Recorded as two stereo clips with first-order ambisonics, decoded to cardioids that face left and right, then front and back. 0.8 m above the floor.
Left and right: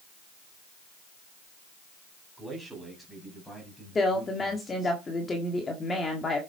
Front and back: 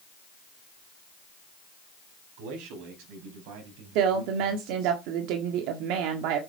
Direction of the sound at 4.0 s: 165° left.